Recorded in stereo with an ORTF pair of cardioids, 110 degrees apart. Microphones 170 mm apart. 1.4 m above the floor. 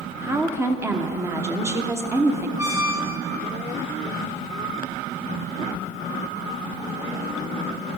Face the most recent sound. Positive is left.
turn(degrees=-20)